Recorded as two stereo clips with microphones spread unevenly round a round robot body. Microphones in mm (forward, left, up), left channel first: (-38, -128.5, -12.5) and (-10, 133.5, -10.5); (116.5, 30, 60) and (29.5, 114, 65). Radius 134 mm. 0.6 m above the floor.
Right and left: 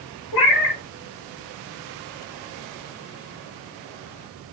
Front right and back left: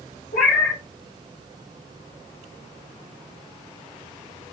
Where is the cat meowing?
75° right, 1.1 m.